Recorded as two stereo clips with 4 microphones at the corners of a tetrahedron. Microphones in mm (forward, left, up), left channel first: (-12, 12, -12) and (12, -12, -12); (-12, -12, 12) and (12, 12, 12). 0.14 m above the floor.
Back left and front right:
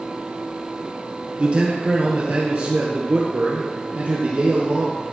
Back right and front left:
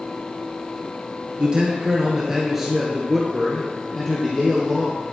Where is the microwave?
I don't hear a microwave.